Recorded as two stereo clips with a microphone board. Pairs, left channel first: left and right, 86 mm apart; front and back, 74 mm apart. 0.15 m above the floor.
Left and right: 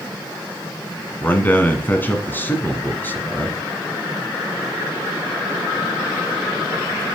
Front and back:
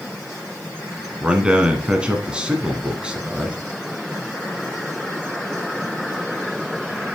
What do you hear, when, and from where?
1.2 s a man speaking: 120° left, 1.4 m